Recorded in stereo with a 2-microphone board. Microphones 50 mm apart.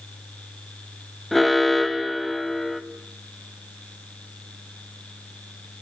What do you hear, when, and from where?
1.3 s an alarm: centre (ahead or behind), 1.5 m